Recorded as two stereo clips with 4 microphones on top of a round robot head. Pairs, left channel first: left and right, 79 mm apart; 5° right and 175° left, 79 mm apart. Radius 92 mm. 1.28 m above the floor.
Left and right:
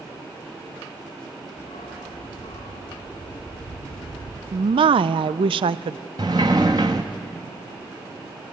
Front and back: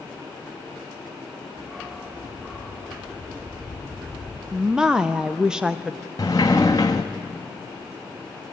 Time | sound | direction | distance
1.6 | a dog barking | 90° left | 4 m
4.5 | a woman speaking | 105° right | 0.5 m
6.2 | a sliding door | 55° right | 0.7 m